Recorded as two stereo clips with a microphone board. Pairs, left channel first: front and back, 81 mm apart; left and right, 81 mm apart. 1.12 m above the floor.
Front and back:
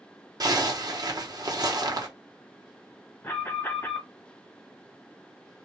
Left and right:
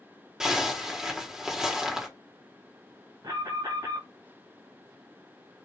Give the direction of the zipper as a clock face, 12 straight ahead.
6 o'clock.